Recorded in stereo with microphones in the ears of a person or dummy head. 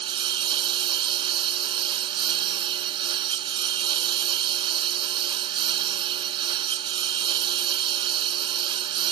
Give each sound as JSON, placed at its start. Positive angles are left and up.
{"t": 0.0, "sound": "a lawn mower", "side_deg": -30}